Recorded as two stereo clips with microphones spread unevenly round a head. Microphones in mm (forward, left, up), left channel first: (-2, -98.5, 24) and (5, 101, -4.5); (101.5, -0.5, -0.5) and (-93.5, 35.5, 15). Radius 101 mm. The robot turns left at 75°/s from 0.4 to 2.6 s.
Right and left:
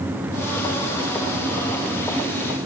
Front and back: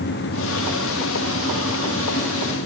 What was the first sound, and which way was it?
Only background noise.